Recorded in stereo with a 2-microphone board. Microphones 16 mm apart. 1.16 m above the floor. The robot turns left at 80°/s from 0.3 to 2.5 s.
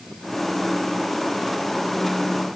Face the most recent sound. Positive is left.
No sound to turn to.